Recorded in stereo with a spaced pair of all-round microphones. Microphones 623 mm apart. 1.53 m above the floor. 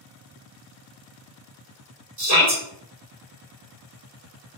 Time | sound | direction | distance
2.2 | a shout | 70° right (ahead or behind) | 1.5 m